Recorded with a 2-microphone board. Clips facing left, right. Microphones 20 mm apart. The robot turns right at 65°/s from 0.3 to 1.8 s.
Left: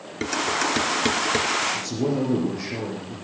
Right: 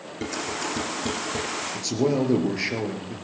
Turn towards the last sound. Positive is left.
turn(degrees=-40)  # may be behind; listen again after turning